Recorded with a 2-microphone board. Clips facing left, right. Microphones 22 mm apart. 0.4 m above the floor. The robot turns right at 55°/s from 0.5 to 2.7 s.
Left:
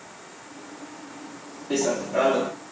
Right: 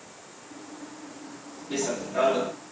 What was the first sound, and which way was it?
Running footsteps, 105° left.